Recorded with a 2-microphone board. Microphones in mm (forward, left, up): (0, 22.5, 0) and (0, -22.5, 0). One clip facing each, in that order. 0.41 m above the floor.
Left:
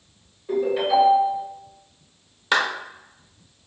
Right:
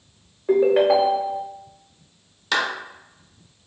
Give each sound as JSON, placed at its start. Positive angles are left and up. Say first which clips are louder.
{"t": 0.5, "sound": "a ringtone", "louder": "right 5 dB", "side_deg": -55, "distance_m": 0.6}
{"t": 2.5, "sound": "a clap", "louder": "left 2 dB", "side_deg": 20, "distance_m": 0.8}